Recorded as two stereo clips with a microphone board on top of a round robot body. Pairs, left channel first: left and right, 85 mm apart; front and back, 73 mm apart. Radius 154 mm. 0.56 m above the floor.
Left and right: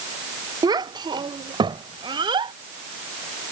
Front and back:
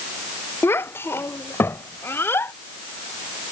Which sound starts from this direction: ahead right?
A child speaking, at 0.6 s.